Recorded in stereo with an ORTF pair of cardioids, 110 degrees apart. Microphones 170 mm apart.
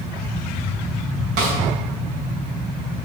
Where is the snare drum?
70° right, 3 m.